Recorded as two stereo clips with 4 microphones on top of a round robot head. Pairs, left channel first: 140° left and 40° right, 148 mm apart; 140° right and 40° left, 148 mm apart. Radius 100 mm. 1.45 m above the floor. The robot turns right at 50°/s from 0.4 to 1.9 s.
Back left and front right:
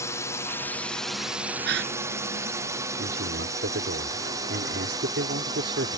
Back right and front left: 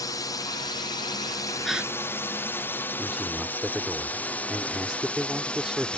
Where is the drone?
170° right; by 6.0 s 65° right.